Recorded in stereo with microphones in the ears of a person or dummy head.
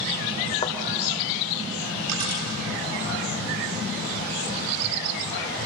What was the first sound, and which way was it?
A thud, 25° left (ahead or behind).